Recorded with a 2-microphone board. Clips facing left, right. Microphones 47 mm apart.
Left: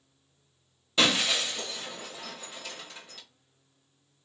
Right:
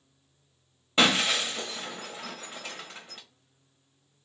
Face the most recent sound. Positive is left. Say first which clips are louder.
# right 2 dB
turn(degrees=-25)  # may be behind; listen again after turning